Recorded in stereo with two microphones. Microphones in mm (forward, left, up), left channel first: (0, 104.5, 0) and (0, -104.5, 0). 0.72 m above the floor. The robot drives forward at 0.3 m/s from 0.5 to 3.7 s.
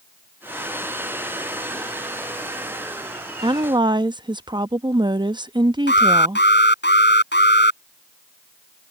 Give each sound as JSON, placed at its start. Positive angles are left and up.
{"t": 3.4, "sound": "a woman speaking", "side_deg": -25}
{"t": 5.9, "sound": "an alarm", "side_deg": 60}